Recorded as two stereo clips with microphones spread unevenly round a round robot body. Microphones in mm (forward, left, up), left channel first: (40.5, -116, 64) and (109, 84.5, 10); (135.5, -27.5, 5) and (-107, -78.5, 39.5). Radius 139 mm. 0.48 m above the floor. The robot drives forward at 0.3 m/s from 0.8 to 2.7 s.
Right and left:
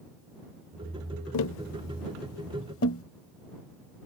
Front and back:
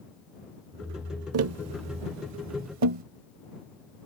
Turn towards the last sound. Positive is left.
turn(degrees=-155)